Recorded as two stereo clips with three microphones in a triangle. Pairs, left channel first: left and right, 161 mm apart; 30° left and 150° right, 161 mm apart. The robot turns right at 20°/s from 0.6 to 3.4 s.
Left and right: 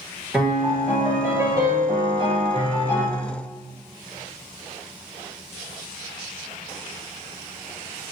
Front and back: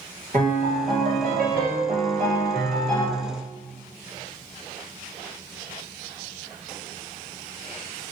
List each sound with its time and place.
0.3 s a piano: 175° right, 1.9 m; by 3.0 s 130° right, 1.9 m